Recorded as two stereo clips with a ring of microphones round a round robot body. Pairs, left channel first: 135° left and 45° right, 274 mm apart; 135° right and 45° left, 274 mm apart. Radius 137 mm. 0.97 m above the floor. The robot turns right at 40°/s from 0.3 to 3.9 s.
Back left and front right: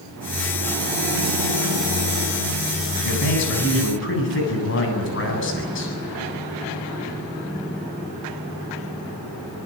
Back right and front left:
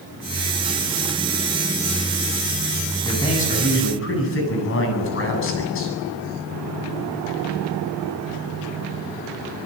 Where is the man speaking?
145° left, 9 m; by 6.0 s straight behind, 9 m.